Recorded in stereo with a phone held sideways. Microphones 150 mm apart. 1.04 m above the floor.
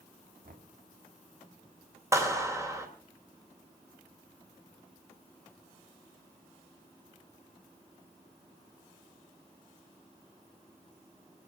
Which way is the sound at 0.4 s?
75° right (ahead or behind).